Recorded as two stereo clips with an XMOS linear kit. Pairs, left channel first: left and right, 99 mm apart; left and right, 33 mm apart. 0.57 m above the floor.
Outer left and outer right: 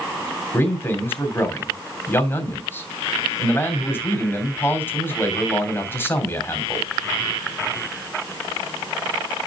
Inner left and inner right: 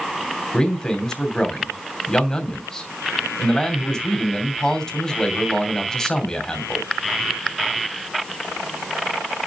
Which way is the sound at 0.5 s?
25° left (ahead or behind).